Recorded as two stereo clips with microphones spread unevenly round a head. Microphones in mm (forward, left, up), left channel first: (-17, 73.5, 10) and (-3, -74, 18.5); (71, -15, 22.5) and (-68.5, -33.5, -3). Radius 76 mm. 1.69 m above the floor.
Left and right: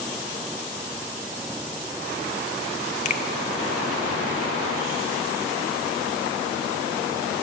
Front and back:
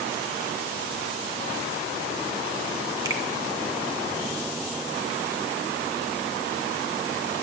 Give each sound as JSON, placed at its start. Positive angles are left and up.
{"t": 3.0, "sound": "a finger snap", "azimuth_deg": 115, "distance_m": 0.7}